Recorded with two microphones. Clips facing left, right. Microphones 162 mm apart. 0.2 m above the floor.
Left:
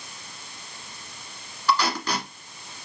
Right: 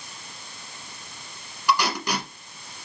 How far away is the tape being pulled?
About 1.6 m.